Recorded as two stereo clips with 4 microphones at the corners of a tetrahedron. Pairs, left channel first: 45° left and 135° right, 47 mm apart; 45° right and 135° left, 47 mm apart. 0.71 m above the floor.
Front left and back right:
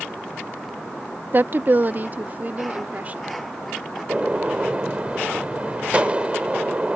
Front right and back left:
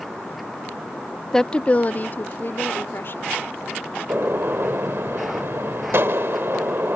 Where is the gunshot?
160° left.